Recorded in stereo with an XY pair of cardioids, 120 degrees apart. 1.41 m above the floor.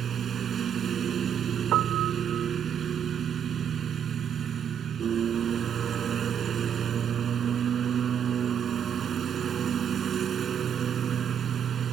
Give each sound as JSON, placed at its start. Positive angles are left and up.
{"t": 0.0, "sound": "a lawn mower", "azimuth_deg": -45}
{"t": 1.7, "sound": "a piano", "azimuth_deg": -70}